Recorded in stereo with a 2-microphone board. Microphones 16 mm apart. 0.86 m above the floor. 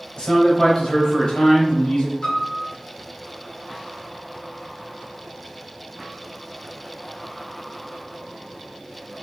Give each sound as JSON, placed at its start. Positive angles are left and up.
{"t": 0.2, "sound": "a man speaking", "side_deg": 70, "distance_m": 2.0}
{"t": 2.2, "sound": "a piano", "side_deg": 70, "distance_m": 2.0}